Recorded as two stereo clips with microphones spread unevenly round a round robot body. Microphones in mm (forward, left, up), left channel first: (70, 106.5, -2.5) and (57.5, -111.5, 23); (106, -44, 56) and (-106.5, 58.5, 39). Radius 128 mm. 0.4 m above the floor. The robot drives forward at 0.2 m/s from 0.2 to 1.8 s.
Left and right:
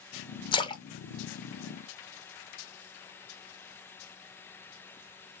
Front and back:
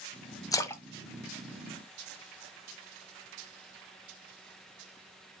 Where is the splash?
45° left, 0.6 m; by 2.3 s 100° left, 0.5 m.